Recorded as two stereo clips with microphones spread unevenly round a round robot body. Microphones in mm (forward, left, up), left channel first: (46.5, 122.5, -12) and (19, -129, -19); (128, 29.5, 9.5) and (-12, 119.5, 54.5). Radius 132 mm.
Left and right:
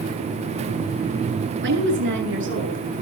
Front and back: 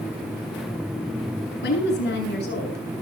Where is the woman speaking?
50° right, 8 m; by 3.0 s 55° right, 7.5 m.